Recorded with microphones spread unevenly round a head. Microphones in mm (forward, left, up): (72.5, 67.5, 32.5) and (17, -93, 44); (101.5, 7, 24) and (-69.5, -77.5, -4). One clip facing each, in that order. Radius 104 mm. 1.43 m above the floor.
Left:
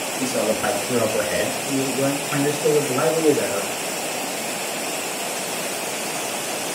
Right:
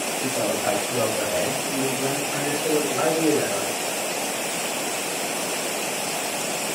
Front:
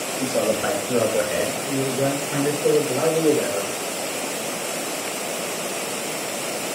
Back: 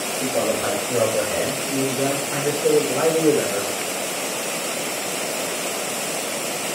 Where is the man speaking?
90° left, 6.5 m; by 3.7 s 130° left, 6 m.